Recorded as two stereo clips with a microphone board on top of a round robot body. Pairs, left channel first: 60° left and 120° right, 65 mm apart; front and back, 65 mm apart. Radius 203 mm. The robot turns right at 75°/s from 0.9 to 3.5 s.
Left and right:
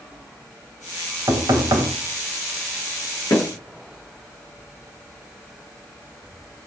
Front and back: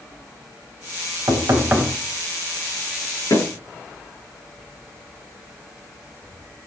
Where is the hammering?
30° left, 8.5 m; by 3.5 s 40° left, 8.5 m.